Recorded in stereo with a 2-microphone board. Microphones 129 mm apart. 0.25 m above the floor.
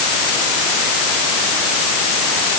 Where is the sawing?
No sawing in this recording.